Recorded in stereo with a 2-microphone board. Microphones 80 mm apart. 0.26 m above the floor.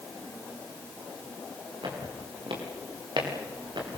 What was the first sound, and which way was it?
Footsteps, 90° right.